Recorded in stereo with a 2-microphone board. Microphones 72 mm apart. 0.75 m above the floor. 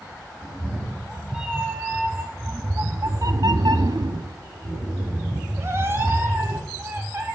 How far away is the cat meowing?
About 1.7 m.